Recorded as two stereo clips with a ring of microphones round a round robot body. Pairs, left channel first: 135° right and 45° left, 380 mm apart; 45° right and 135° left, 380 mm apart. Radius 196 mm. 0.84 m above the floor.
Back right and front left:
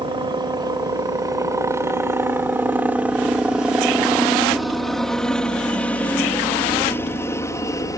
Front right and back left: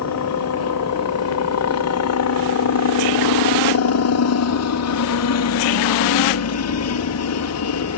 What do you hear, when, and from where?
0.0 s a helicopter: 30° right; by 8.0 s 60° right